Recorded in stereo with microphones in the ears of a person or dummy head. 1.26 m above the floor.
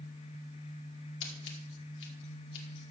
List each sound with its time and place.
1.2 s scissors: 65° left (ahead or behind), 2.5 m